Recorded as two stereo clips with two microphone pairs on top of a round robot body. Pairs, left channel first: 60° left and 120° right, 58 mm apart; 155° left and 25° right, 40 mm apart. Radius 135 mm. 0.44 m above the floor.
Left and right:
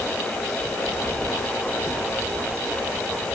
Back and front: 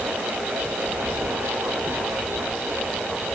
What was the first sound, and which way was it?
Only background noise.